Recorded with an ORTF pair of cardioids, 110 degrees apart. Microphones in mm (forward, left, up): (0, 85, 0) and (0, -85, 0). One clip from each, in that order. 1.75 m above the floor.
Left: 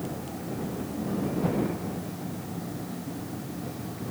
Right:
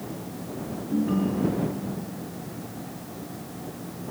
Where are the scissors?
No scissors in this recording.